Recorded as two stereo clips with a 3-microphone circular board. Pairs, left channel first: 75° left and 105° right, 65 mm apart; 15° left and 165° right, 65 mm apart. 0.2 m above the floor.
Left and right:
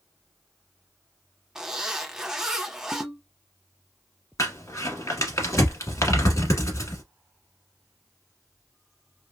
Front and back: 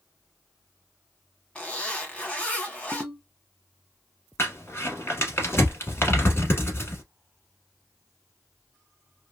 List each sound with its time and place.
1.6 s a zipper: 30° right, 1.0 m
2.9 s a ringtone: 140° right, 0.5 m
4.4 s crumpling: 55° left, 1.0 m